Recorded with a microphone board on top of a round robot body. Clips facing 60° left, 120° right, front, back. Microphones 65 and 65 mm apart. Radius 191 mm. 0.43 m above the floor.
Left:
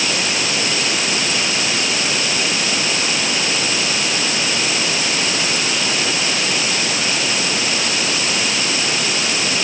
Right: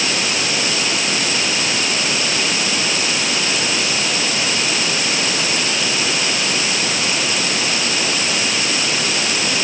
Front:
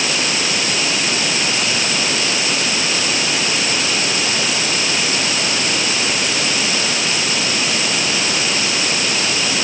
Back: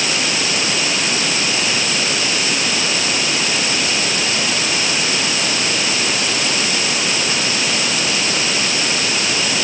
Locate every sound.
Only background noise.